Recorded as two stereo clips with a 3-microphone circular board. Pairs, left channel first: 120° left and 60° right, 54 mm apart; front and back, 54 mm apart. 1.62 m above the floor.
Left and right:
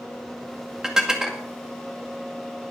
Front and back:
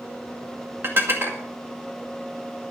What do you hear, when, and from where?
0.8 s dishes clattering: 140° right, 2.0 m